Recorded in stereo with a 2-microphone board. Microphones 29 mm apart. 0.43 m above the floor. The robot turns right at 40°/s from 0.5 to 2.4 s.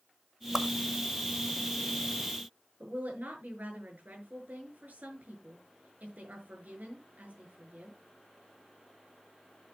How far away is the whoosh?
About 1.1 m.